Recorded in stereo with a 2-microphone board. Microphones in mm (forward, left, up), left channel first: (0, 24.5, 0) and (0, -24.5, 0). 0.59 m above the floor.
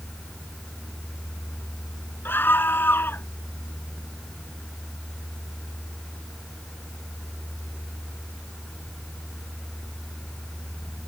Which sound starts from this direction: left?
A scream, at 2.2 s.